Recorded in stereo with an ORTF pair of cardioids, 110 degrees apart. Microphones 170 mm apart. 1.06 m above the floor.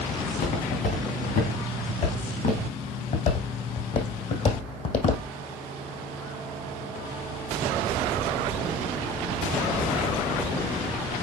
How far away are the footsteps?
About 4 m.